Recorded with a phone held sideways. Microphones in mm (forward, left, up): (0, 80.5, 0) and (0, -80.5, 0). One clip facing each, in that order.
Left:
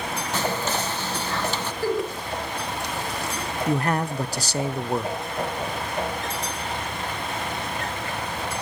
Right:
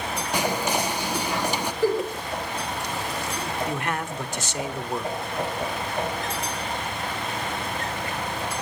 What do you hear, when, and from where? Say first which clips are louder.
0.3 s whispering: right 2 dB; 15° right (ahead or behind), 0.6 m
1.8 s a giggle: right 2 dB; 15° right (ahead or behind), 6.5 m
3.7 s a man speaking: left 5 dB; 35° left (ahead or behind), 1.0 m